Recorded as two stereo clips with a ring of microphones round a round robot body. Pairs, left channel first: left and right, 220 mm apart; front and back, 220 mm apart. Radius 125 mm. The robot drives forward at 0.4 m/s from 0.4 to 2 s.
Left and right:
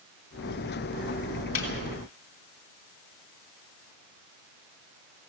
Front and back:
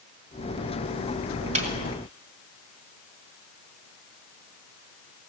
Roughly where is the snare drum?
Behind left.